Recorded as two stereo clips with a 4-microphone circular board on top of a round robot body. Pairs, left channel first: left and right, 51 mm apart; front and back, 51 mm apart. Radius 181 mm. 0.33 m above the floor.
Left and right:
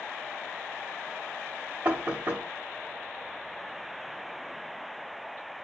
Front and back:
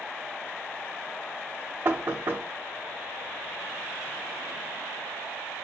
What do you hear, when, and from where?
1.9 s knocking: 145° right, 1.2 m